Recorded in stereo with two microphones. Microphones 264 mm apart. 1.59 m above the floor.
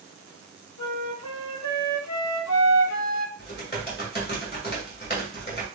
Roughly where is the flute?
Left.